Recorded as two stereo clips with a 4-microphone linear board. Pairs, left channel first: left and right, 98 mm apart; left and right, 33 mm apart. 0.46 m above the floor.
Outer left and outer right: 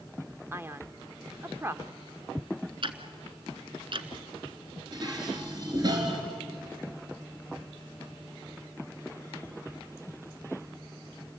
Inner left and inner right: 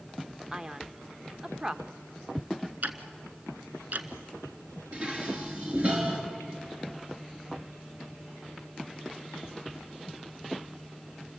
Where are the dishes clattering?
45° right (ahead or behind), 4.5 m.